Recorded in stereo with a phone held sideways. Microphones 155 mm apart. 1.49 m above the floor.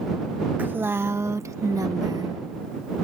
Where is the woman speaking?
10° right (ahead or behind); by 2.4 s 25° right (ahead or behind).